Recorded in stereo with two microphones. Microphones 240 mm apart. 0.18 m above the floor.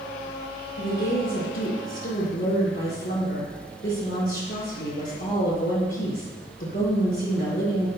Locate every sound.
0.8 s a woman speaking: 50° left (ahead or behind), 2.5 m